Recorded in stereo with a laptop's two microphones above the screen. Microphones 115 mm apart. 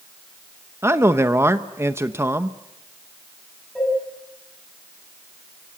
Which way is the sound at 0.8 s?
20° right (ahead or behind).